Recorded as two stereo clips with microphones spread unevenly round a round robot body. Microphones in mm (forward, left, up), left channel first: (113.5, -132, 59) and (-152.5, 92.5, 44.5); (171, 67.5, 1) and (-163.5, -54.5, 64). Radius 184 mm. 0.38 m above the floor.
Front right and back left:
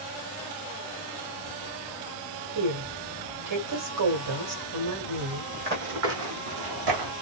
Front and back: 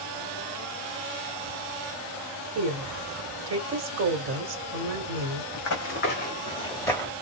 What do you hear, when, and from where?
2.5 s a woman speaking: 145° left, 1.5 m
5.5 s running footsteps: 70° left, 0.9 m; by 7.1 s 110° left, 1.3 m